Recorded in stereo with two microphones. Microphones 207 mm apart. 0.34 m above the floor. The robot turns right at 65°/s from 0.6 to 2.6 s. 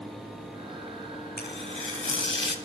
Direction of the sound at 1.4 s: 50° left.